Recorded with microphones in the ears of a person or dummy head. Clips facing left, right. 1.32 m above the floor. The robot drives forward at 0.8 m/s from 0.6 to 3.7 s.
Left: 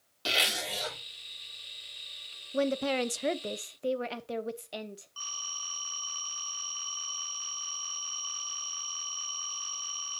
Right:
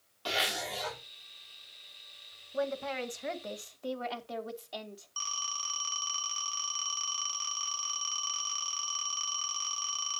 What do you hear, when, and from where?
0.2 s a zipper: 30° left (ahead or behind), 4 m
2.5 s a woman speaking: 35° left (ahead or behind), 0.7 m; by 5.1 s 30° left (ahead or behind), 0.7 m
5.2 s a phone ringing: 35° right (ahead or behind), 3 m